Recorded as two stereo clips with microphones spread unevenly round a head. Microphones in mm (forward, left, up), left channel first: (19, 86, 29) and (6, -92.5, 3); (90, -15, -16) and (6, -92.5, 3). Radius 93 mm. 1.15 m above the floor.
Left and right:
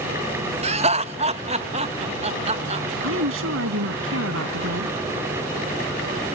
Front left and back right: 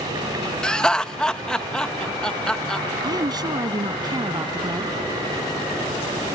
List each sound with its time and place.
0.6 s laughter: 40° right
3.0 s a woman speaking: 85° right